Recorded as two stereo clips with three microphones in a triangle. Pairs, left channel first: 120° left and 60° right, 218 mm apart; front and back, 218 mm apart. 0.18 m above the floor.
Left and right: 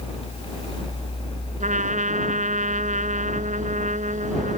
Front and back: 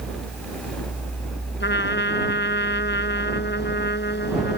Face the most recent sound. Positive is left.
turn(degrees=-15)